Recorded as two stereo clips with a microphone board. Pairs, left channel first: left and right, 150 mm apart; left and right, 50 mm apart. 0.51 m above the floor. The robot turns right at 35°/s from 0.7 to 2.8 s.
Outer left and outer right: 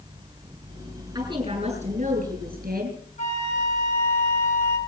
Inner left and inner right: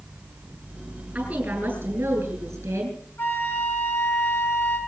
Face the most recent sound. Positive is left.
turn(degrees=50)  # may be behind; listen again after turning